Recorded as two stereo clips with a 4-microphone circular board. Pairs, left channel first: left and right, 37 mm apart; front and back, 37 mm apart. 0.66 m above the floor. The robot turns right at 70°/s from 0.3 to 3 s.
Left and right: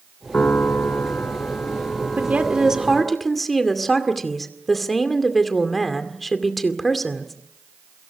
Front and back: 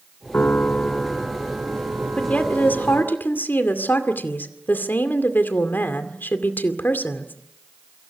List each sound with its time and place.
0.3 s a piano: 40° left, 2.0 m; by 3.2 s 135° right, 2.0 m
2.2 s a woman speaking: 55° right, 2.5 m; by 7.3 s 5° left, 2.5 m